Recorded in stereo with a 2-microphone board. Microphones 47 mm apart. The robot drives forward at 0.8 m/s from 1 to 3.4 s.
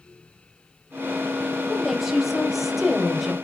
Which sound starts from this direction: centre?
A woman speaking, at 1.7 s.